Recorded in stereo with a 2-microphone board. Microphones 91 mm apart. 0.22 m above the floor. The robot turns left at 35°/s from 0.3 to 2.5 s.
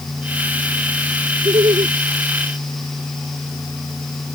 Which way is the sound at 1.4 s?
60° right (ahead or behind).